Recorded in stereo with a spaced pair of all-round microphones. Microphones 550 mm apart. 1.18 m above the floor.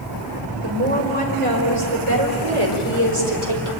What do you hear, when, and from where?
0.6 s a woman speaking: 85° right, 5 m; by 3.7 s 60° right (ahead or behind), 4 m